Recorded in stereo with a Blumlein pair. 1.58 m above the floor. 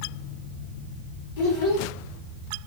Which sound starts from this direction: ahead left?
A child speaking, at 1.4 s.